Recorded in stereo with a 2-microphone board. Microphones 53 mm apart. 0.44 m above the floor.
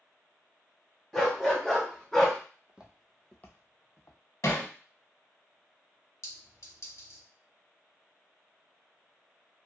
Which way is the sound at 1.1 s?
10° left (ahead or behind).